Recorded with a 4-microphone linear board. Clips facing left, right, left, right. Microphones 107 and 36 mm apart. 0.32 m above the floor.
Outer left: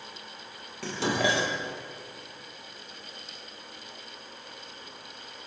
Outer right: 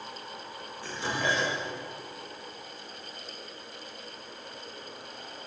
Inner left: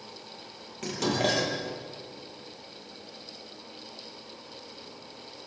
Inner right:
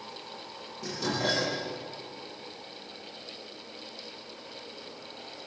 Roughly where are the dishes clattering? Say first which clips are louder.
Outer left 4 dB, inner left 3 dB; left.